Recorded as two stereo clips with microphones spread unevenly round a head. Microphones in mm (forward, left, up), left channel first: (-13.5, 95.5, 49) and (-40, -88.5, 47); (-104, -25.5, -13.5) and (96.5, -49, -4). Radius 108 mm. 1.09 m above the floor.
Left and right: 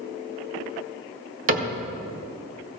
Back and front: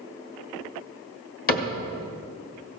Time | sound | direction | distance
1.5 | a cupboard door | 145° right | 1.7 m